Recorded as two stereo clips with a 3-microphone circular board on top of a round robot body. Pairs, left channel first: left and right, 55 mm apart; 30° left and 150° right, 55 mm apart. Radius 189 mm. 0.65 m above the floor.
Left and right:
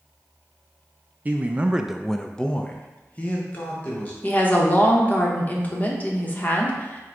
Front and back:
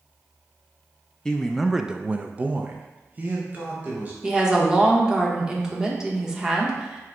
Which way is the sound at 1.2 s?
45° right.